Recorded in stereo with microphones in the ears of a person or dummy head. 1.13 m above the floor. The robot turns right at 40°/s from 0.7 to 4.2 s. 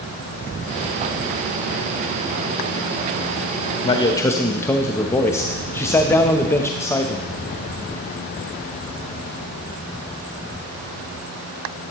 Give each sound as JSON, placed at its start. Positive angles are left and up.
{"t": 3.8, "sound": "a man speaking", "side_deg": 30, "distance_m": 1.1}